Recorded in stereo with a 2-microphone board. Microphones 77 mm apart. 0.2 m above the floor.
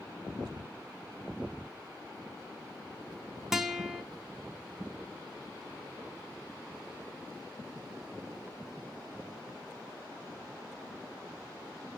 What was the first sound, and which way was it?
A guitar, 5° right (ahead or behind).